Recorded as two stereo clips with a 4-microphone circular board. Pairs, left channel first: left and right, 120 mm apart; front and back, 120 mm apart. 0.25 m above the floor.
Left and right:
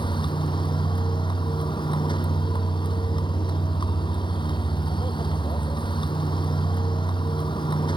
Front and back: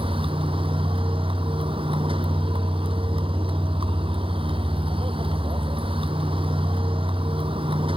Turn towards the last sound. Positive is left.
turn(degrees=140)